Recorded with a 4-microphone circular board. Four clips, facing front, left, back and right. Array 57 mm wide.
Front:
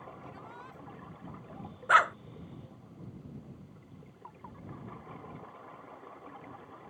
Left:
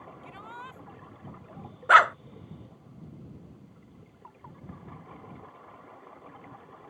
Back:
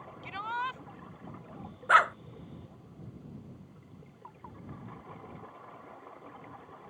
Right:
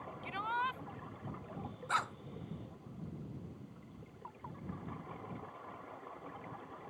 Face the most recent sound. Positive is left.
turn(degrees=100)